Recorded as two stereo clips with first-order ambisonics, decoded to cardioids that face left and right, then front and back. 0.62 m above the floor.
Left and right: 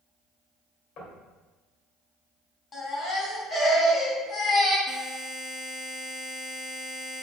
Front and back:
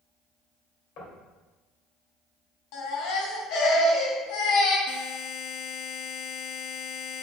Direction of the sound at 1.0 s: 40° left.